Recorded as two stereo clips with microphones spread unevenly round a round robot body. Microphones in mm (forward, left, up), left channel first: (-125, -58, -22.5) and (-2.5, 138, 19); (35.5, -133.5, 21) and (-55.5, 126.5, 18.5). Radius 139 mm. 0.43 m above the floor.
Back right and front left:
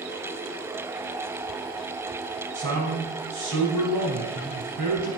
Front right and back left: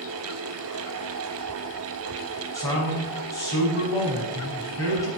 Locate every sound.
2.5 s a man speaking: 5° left, 4 m